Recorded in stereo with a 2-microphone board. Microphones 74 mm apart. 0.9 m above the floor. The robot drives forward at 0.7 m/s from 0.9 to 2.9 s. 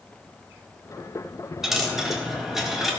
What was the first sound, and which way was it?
A dropped coin, 5° right (ahead or behind).